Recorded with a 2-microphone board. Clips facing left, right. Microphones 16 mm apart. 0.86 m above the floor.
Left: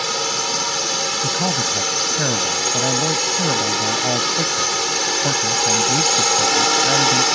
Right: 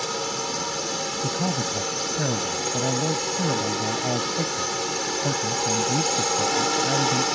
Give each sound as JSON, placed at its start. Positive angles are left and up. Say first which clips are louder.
{"t": 0.0, "sound": "a drone", "louder": "left 6 dB", "side_deg": 40}
{"t": 1.2, "sound": "a man speaking", "louder": "left 6 dB", "side_deg": 55}